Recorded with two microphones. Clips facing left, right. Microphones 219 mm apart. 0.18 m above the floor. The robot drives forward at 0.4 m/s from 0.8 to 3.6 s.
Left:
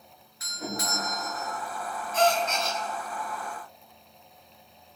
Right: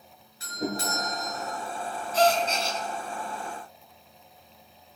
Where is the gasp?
35° right (ahead or behind), 1.1 m; by 2.8 s 30° right (ahead or behind), 1.2 m.